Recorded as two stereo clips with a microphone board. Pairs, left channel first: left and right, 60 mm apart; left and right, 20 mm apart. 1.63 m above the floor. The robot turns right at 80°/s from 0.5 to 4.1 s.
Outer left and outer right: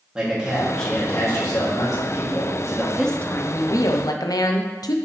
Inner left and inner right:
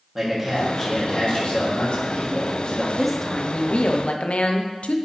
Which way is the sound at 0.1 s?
15° right.